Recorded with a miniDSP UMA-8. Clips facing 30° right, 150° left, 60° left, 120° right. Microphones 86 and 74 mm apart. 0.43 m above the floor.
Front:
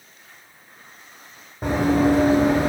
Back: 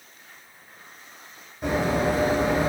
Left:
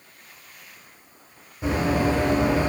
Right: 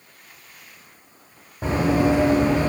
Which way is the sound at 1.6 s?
75° right.